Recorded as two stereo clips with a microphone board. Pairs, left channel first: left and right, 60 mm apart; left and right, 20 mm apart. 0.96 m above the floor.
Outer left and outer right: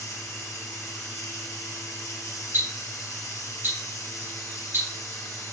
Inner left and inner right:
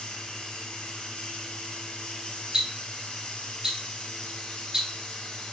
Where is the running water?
65° left (ahead or behind), 1.6 m.